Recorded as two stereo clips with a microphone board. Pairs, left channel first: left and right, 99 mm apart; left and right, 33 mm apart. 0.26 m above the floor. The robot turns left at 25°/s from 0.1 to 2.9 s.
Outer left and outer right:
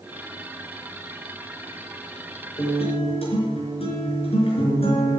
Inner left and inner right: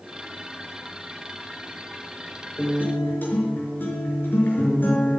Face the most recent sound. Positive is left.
turn(degrees=70)  # may be behind; listen again after turning